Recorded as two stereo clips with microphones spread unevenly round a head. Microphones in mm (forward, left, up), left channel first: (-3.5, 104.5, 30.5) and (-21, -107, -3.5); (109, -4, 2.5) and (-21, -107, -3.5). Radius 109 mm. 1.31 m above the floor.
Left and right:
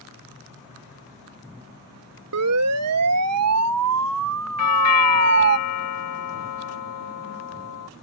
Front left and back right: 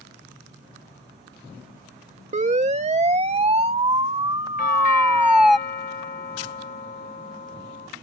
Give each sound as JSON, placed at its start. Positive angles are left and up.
{"t": 2.3, "sound": "a siren", "azimuth_deg": -95}
{"t": 4.6, "sound": "a doorbell", "azimuth_deg": 95}